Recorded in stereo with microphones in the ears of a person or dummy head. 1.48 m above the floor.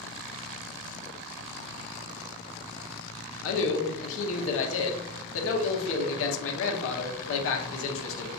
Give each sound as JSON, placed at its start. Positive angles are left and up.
{"t": 3.4, "sound": "a man speaking", "side_deg": 75, "distance_m": 0.9}